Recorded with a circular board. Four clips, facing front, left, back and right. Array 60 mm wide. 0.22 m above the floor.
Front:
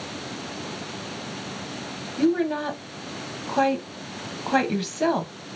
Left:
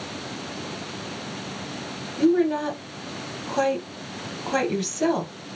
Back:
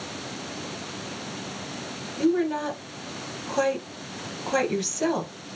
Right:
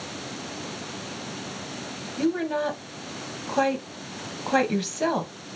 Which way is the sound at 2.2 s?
25° right.